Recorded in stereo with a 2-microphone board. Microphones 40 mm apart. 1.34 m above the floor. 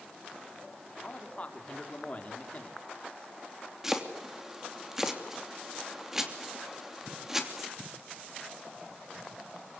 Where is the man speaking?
35° left (ahead or behind), 4 m.